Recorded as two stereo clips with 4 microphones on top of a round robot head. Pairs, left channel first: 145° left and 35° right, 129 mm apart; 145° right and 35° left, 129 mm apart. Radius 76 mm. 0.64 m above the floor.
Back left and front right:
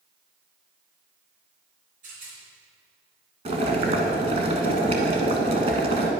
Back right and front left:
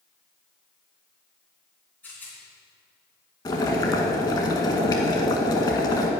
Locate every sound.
2.0 s a rattle: 65° right, 3.5 m
3.5 s boiling: 85° right, 1.2 m